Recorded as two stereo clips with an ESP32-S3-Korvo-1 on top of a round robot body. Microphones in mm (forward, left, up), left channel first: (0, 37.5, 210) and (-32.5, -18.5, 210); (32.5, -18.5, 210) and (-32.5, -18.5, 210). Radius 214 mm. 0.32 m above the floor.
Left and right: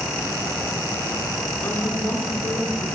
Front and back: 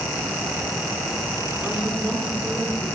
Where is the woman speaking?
110° left, 1.9 m; by 2.9 s 75° left, 3 m.